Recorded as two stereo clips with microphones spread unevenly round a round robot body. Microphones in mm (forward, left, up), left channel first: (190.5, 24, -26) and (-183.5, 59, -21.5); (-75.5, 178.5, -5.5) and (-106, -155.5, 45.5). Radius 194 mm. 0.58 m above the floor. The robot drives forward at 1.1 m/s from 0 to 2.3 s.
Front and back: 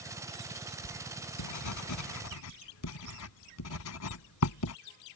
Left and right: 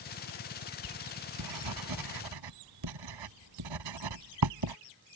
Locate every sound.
0.8 s writing: 45° right; by 4.8 s 60° right